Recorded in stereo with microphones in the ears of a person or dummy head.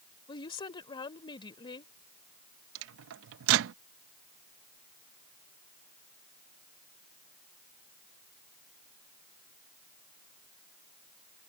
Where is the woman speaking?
35° left (ahead or behind).